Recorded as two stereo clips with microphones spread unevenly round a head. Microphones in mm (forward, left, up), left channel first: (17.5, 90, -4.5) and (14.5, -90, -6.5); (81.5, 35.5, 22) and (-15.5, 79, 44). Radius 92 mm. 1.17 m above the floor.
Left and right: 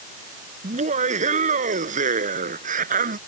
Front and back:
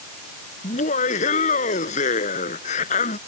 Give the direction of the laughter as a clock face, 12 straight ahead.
1 o'clock.